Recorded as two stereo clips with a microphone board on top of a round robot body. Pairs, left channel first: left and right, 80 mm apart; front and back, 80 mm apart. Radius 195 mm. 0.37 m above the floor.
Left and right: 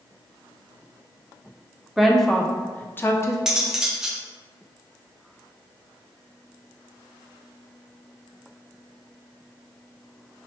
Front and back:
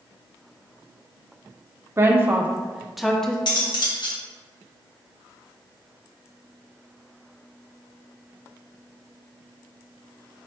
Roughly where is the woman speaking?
Behind.